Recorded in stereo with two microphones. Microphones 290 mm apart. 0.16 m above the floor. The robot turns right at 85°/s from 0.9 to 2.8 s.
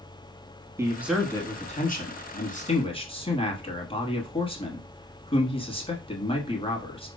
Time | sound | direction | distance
0.8 | a man speaking | 20° right | 1.2 m